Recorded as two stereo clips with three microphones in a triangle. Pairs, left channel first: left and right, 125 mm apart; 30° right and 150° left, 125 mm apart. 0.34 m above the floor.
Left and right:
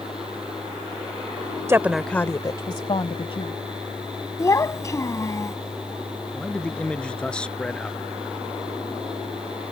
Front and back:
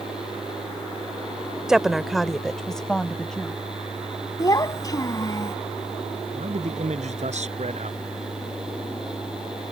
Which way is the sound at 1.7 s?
130° right.